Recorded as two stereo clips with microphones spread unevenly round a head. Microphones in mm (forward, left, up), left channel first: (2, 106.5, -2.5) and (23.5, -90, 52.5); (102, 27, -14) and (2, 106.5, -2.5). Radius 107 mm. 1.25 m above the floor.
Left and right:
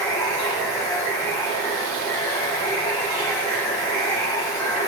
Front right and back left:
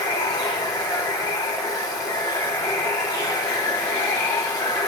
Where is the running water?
25° left, 1.0 m.